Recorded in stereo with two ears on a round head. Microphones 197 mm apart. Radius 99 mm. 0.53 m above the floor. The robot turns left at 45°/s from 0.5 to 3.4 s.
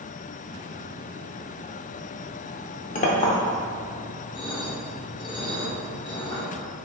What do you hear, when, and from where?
3.0 s a clink: 35° left (ahead or behind), 0.6 m; by 6.4 s 15° left (ahead or behind), 0.6 m